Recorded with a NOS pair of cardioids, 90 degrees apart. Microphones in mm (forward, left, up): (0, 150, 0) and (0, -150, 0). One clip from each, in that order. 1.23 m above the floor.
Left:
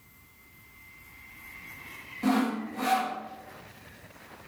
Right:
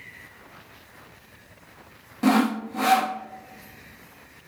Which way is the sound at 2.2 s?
40° right.